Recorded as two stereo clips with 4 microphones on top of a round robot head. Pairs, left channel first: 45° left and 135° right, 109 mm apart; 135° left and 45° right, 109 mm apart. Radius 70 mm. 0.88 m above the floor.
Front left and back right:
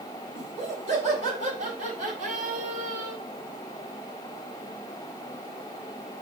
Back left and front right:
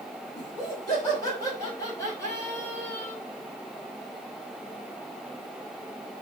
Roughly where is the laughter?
Behind.